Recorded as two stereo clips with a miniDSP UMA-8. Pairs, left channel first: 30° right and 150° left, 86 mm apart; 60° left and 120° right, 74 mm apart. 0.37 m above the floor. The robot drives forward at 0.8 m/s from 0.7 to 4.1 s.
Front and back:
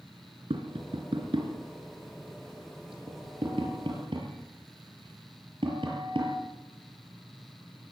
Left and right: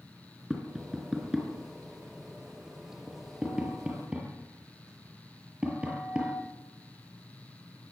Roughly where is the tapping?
Behind left.